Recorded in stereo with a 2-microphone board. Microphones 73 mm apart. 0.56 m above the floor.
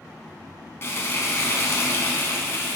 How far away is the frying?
About 1.0 m.